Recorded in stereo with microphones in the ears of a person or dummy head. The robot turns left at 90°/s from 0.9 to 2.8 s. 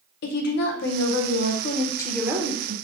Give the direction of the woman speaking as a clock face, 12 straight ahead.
8 o'clock.